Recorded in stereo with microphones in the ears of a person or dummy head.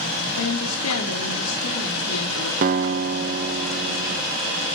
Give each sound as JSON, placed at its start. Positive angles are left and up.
{"t": 0.4, "sound": "a woman speaking", "side_deg": 80, "distance_m": 3.5}
{"t": 2.6, "sound": "a guitar", "side_deg": -40, "distance_m": 0.8}